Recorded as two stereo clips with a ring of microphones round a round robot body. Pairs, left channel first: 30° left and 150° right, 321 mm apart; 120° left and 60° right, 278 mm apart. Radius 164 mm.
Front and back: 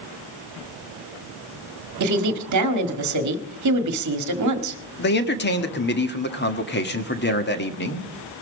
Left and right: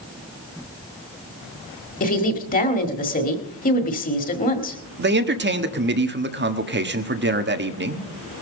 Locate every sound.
2.0 s a woman speaking: straight behind, 1.7 m
5.0 s a man speaking: 20° right, 1.5 m